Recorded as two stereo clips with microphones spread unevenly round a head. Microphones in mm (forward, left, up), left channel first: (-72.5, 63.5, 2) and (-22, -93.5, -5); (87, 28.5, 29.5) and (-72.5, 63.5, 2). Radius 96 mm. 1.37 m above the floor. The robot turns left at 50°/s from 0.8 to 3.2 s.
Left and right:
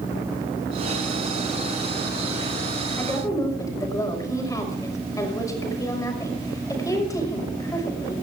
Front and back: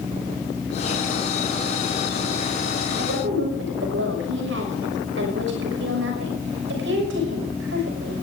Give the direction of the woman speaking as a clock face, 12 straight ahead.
6 o'clock.